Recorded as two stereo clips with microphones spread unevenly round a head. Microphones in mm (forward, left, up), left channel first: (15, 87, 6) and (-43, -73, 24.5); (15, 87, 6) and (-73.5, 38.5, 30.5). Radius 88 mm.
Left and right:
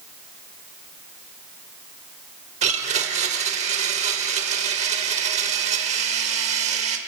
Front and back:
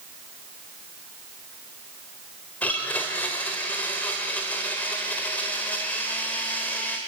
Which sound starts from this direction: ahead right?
A blender, at 2.6 s.